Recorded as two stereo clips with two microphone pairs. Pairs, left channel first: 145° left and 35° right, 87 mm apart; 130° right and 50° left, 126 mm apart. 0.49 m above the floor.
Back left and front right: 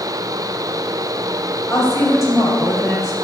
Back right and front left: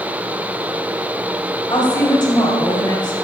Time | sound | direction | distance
1.7 | a woman speaking | 175° right | 3 m